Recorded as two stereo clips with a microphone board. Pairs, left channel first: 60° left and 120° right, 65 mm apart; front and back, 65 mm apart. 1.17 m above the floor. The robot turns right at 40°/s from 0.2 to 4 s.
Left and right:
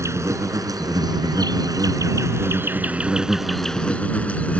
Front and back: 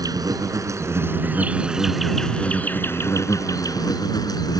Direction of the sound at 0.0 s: 165° right.